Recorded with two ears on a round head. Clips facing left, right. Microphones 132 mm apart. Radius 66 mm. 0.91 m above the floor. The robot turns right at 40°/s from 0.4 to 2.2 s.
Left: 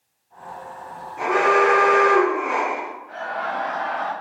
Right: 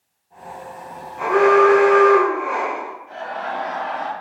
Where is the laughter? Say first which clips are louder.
Even; 30° right (ahead or behind), 1.1 m.